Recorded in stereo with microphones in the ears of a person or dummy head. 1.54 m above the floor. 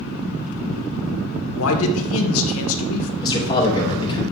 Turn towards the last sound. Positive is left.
turn(degrees=25)  # may be behind; listen again after turning